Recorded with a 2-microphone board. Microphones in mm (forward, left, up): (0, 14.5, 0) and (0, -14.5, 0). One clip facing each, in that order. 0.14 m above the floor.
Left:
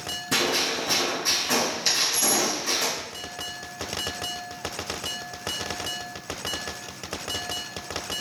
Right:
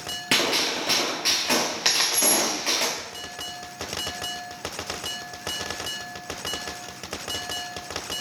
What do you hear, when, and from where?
0.3 s a gunshot: 60° right (ahead or behind), 1.6 m
1.9 s a dropped coin: 85° right, 1.2 m